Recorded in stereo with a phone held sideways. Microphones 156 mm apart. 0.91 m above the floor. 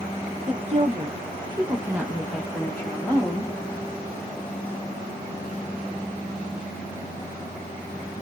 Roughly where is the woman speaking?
Right.